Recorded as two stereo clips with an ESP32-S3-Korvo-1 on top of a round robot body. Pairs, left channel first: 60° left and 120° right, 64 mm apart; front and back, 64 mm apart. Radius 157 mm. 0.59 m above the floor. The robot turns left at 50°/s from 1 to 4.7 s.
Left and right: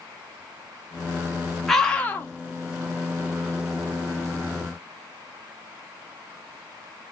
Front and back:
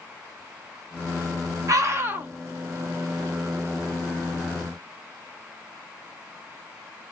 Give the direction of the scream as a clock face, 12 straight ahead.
7 o'clock.